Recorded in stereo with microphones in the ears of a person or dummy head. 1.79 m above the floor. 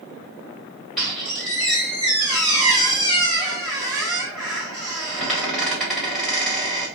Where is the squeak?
Centre (ahead or behind), 1.5 m.